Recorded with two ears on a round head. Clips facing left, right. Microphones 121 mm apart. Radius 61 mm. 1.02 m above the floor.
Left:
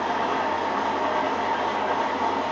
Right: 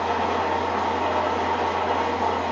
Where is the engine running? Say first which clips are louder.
Right 1 dB; 10° right (ahead or behind), 0.7 m.